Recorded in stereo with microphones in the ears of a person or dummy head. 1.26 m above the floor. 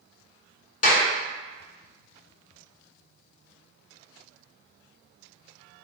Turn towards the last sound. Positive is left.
turn(degrees=45)  # may be behind; listen again after turning